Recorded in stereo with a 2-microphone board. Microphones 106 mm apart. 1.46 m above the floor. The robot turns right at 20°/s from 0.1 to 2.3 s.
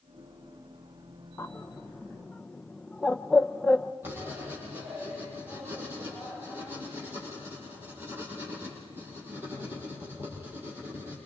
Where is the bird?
25° left (ahead or behind), 1.0 m; by 3.9 s 5° left (ahead or behind), 1.0 m.